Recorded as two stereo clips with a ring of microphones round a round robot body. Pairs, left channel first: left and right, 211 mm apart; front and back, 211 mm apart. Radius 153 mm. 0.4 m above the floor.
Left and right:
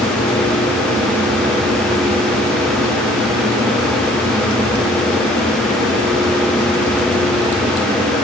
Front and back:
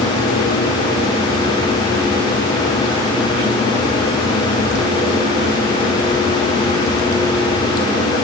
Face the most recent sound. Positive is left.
No sound to turn to.